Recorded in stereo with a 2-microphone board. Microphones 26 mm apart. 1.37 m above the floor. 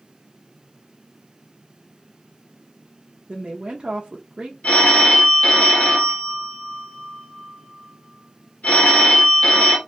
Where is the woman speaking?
55° right (ahead or behind), 0.7 m.